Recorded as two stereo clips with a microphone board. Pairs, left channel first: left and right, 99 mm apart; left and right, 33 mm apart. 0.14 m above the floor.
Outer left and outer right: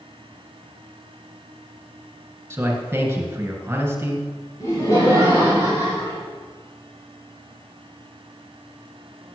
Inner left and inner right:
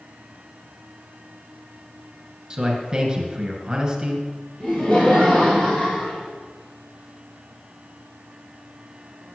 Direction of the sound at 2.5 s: 25° right (ahead or behind).